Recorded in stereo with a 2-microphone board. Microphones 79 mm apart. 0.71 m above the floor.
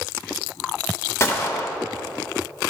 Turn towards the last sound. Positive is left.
turn(degrees=35)  # may be behind; listen again after turning